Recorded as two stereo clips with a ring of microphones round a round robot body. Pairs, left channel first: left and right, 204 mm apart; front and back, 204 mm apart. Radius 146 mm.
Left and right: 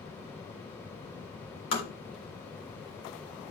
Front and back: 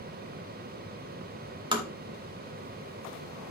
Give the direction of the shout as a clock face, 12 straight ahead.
No shout in this recording.